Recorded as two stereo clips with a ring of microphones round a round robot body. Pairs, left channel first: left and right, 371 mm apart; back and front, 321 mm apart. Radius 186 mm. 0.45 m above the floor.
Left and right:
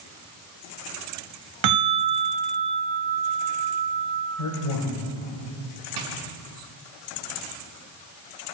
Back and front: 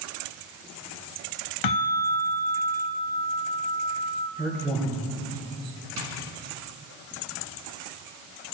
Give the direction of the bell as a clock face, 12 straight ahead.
5 o'clock.